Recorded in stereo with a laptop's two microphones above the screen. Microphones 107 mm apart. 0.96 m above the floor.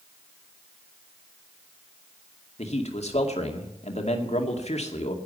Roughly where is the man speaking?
Left.